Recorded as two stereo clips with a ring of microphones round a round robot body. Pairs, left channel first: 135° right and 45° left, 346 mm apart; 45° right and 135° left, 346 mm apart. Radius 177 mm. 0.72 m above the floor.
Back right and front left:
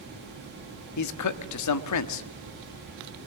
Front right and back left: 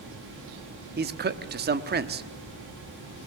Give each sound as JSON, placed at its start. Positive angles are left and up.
{"t": 1.0, "sound": "a man speaking", "azimuth_deg": -165, "distance_m": 1.3}